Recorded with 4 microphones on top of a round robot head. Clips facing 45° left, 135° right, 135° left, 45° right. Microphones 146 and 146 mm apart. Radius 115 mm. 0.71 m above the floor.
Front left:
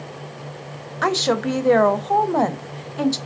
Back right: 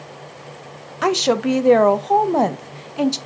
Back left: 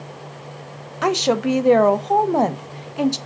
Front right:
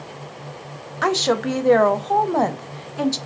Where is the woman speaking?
Straight behind, 0.5 m.